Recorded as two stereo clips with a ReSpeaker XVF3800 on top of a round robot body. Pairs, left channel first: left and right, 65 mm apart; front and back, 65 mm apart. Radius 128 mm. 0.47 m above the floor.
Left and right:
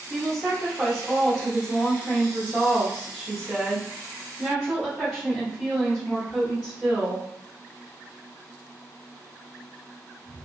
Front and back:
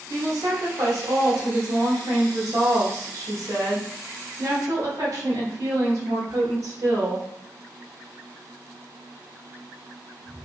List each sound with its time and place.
0.1 s a woman speaking: 170° right, 1.1 m